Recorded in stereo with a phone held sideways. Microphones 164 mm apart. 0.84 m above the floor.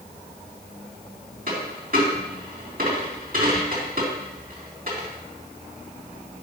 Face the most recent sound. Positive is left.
turn(degrees=-60)  # may be behind; listen again after turning